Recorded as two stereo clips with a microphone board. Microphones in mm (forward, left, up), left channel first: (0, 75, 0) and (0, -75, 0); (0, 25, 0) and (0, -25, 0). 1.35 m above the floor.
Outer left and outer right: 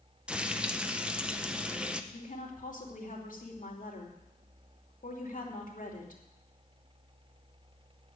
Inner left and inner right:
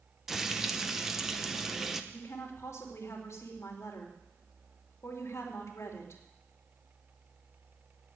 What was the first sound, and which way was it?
Frying, 5° right (ahead or behind).